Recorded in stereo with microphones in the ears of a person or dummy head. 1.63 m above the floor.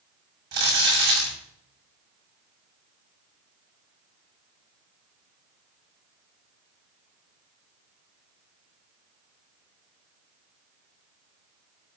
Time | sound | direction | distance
0.5 | crumpling | 55° right (ahead or behind) | 7.5 m